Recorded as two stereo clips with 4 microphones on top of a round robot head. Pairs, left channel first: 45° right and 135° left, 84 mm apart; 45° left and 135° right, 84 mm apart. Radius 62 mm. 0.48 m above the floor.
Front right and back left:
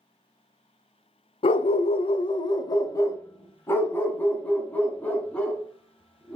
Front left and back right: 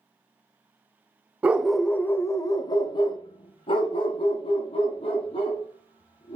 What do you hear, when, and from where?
1.4 s a dog barking: 65° right, 0.6 m; by 6.4 s 35° left, 3 m